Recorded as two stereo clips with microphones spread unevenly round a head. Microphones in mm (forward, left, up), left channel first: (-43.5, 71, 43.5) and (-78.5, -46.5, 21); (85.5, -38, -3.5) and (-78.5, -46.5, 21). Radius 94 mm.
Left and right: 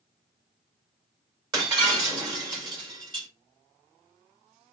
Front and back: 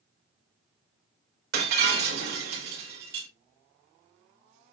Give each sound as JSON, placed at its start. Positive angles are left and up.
{"t": 1.5, "sound": "breaking glass", "azimuth_deg": -155, "distance_m": 6.0}